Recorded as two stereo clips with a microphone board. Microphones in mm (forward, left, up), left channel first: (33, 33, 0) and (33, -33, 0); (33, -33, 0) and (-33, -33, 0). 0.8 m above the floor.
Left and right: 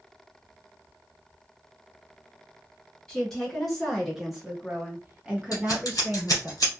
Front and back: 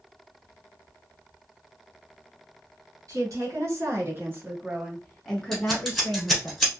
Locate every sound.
3.1 s a woman speaking: 175° left, 1.7 m; by 6.5 s 25° right, 1.4 m
5.5 s scissors: 90° left, 1.3 m